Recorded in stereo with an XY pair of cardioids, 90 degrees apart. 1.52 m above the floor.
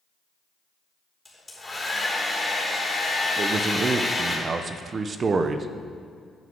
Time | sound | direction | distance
1.2 | a hair dryer | 15° left | 4 m
3.4 | a man speaking | 45° right | 0.9 m